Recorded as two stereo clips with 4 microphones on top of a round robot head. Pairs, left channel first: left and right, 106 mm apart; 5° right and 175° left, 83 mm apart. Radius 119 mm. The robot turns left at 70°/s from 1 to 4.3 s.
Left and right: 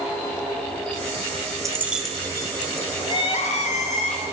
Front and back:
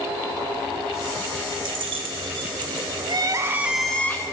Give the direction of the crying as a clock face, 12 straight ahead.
7 o'clock.